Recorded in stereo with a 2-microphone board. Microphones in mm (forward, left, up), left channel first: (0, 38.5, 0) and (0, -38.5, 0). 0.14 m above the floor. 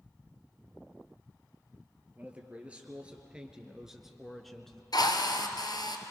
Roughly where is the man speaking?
Centre.